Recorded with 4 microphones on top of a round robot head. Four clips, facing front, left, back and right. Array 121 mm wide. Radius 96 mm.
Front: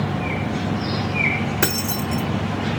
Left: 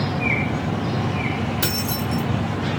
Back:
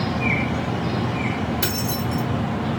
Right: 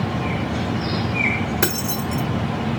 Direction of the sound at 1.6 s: 40° right.